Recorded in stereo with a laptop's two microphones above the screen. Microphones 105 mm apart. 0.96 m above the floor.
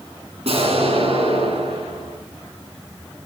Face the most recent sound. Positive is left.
turn(degrees=-70)  # may be behind; listen again after turning